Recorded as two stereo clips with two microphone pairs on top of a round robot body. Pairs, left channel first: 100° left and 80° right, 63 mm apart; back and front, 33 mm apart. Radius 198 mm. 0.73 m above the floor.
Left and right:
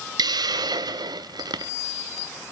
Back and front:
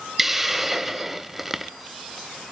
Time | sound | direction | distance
0.2 | a hiss | 85° right | 0.6 m